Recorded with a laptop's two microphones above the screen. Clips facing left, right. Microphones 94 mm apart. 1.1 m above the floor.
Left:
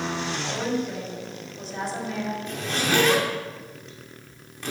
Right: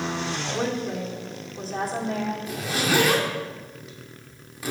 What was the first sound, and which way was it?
A woman speaking, 45° right (ahead or behind).